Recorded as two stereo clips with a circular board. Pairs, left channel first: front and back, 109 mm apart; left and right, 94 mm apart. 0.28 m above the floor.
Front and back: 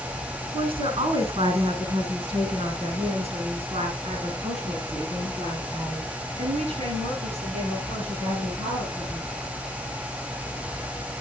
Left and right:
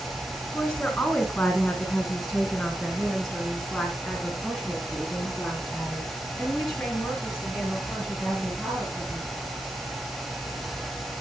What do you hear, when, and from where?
0.5 s a woman speaking: 170° left, 2.5 m; by 9.3 s 175° right, 7.5 m